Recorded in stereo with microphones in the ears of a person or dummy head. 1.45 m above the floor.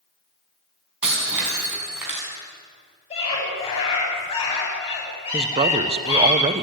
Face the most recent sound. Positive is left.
turn(degrees=-35)  # may be behind; listen again after turning